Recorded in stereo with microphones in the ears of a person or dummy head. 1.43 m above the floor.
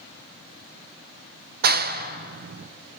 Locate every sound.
1.6 s a clap: 55° right (ahead or behind), 0.6 m